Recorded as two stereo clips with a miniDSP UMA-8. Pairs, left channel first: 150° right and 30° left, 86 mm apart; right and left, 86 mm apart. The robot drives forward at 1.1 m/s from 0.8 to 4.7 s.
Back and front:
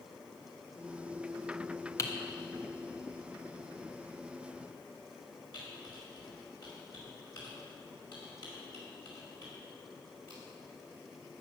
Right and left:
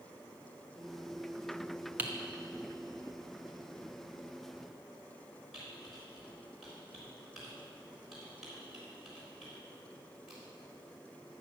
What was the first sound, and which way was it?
Typing on a keyboard, 155° left.